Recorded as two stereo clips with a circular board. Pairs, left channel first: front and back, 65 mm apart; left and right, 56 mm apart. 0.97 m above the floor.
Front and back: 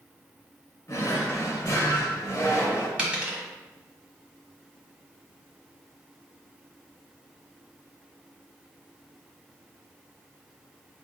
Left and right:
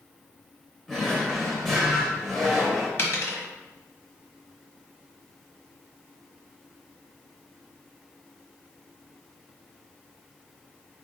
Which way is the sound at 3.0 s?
115° left.